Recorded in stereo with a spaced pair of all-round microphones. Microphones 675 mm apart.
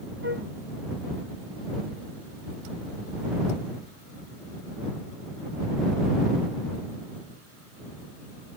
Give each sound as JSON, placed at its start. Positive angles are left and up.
{"t": 0.2, "sound": "a flute", "side_deg": -15}